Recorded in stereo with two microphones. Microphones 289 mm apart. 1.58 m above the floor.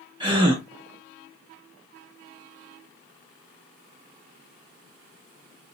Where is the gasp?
15° right (ahead or behind), 1.4 m.